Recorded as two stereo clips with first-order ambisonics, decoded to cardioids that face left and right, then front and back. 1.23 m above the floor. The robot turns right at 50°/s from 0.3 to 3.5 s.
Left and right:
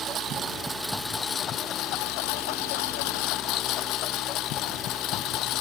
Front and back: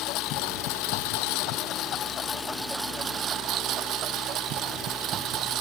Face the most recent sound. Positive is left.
turn(degrees=130)